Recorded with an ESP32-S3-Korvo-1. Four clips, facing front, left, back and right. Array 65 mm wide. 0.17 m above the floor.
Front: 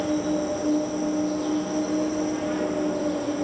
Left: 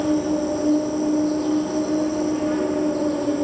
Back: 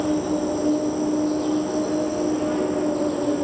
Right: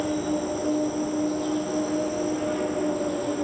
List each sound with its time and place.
0.0 s an insect: 160° left, 1.2 m